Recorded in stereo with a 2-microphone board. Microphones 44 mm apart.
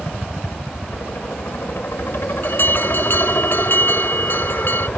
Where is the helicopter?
60° left (ahead or behind).